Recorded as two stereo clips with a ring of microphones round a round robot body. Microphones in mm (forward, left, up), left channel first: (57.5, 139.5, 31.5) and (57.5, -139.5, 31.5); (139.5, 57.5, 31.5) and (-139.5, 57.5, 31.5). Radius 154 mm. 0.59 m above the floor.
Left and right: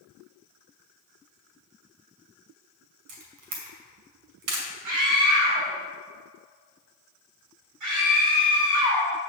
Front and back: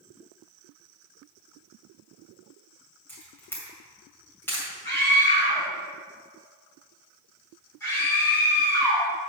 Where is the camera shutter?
85° right, 2 m.